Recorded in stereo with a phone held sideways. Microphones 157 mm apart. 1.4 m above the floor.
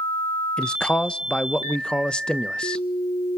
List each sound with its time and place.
0.6 s a man speaking: 5° left (ahead or behind), 0.8 m